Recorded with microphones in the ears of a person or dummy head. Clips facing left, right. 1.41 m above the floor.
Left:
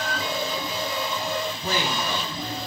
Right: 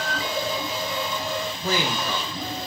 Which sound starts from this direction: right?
A man speaking, at 1.6 s.